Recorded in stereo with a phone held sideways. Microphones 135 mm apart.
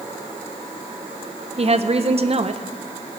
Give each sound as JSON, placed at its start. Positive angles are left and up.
{"t": 1.6, "sound": "a woman speaking", "side_deg": -50, "distance_m": 0.7}